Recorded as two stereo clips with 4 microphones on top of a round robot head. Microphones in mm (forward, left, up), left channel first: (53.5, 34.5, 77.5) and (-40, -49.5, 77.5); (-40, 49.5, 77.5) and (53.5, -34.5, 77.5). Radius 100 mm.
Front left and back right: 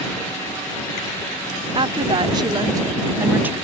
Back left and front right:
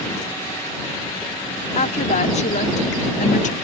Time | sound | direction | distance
1.8 | a woman speaking | 170° left | ?